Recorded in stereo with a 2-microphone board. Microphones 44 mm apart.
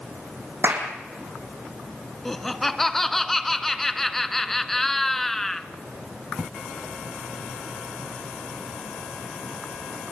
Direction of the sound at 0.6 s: 65° right (ahead or behind).